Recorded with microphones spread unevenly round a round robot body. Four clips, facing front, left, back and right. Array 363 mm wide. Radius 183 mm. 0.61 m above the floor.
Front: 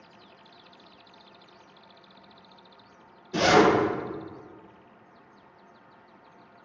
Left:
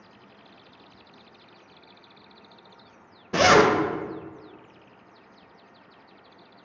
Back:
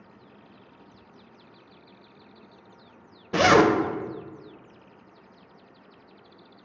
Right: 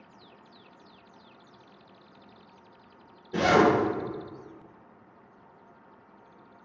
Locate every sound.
3.3 s a zipper: 100° left, 0.5 m